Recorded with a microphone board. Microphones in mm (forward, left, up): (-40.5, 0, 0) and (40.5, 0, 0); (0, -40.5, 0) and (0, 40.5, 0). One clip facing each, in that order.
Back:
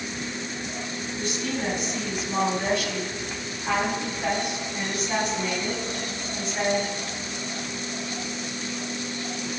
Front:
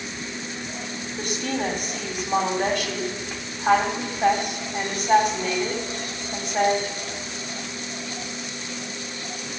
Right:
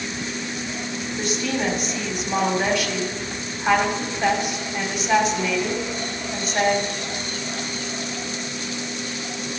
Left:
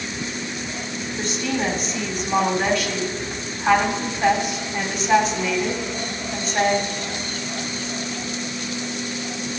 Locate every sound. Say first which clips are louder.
1.2 s a woman speaking: front 3 dB, even; 5° right, 2.5 m